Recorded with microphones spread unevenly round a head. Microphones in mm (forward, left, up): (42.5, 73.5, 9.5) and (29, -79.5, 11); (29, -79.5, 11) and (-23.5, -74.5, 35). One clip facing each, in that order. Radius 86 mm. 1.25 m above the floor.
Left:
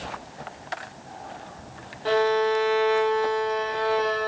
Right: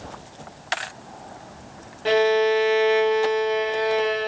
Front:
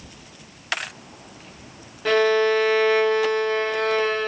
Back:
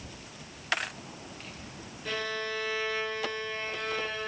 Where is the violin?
25° right, 0.9 m.